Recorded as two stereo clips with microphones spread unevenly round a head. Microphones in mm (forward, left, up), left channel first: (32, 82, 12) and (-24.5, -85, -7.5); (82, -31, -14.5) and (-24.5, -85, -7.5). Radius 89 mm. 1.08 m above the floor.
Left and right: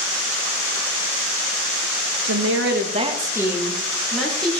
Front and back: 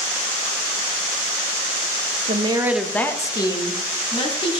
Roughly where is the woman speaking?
Behind right.